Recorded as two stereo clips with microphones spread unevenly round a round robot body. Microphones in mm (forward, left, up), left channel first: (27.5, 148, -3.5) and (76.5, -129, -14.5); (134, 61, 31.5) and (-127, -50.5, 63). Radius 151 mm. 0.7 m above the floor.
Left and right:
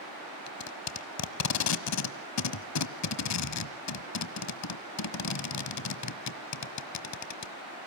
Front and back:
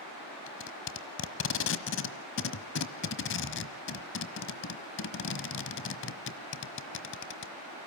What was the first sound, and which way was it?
Tape being pulled, 75° left.